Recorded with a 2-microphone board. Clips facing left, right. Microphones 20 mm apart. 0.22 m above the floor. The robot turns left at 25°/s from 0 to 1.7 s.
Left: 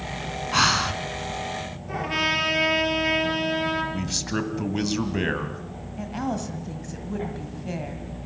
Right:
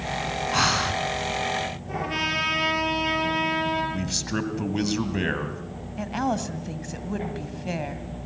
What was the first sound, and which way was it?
Breathing, 10° left (ahead or behind).